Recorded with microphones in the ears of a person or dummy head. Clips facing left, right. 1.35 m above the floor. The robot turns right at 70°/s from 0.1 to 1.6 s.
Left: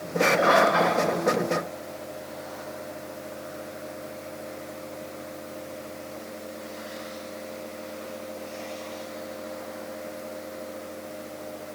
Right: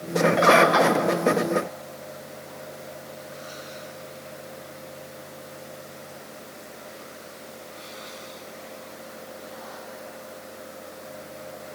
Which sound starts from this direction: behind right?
A bird, at 0.4 s.